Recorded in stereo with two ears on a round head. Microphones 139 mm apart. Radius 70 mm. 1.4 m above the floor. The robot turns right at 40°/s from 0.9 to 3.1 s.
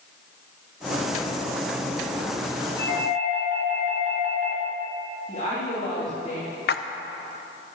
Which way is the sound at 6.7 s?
65° left (ahead or behind).